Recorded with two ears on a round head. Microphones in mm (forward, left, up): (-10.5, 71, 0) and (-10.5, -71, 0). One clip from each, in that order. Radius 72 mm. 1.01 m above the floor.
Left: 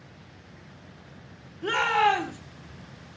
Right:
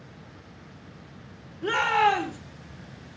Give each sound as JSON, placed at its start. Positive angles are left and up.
{"t": 1.6, "sound": "a shout", "side_deg": 10, "distance_m": 3.5}